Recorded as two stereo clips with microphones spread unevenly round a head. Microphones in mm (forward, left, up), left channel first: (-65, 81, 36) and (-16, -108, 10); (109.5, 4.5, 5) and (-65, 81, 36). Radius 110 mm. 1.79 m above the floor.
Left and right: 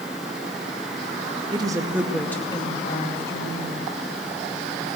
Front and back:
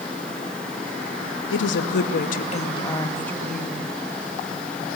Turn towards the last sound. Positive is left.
turn(degrees=75)